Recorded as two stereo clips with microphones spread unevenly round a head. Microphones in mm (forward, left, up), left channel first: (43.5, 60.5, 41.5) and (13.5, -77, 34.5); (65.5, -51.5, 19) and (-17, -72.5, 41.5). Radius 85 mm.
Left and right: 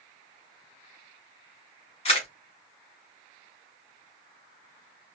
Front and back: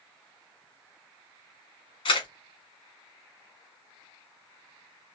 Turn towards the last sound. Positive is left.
turn(degrees=35)